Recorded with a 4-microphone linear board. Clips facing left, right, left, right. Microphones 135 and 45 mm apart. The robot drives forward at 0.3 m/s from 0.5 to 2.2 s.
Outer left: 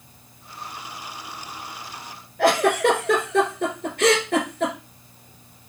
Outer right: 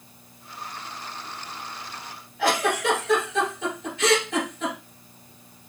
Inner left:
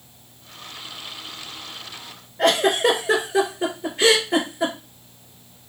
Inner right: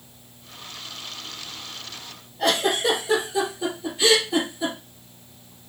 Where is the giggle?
60° left (ahead or behind), 1.8 m.